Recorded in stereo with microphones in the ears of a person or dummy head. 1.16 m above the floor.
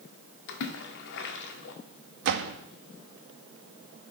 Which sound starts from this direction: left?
A splash, at 0.5 s.